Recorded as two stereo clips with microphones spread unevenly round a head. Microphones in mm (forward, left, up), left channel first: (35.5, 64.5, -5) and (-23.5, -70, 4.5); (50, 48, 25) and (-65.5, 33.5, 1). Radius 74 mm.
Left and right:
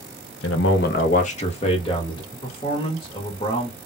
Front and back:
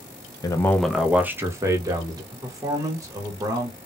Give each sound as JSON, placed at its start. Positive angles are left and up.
{"t": 0.4, "sound": "a man speaking", "azimuth_deg": 65, "distance_m": 0.5}
{"t": 2.3, "sound": "a man speaking", "azimuth_deg": 125, "distance_m": 1.2}